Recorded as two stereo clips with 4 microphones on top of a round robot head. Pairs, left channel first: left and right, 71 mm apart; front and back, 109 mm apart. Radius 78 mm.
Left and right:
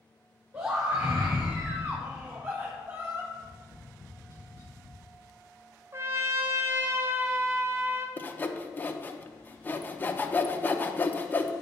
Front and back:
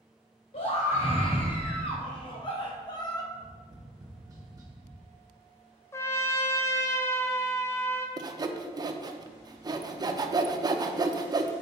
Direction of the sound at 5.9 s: 55° right.